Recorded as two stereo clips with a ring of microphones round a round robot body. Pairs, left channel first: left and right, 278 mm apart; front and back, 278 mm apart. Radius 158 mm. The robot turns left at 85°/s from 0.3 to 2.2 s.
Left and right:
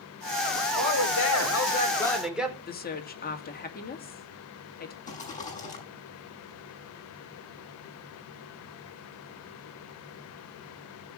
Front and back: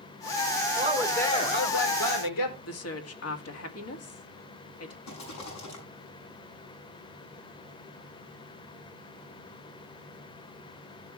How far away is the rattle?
About 7 m.